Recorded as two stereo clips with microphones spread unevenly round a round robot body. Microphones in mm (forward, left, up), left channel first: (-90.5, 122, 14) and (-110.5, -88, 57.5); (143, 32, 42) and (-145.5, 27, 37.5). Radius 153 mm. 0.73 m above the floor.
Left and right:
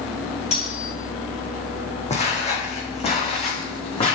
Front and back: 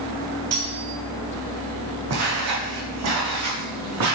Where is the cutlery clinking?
145° left, 3 m.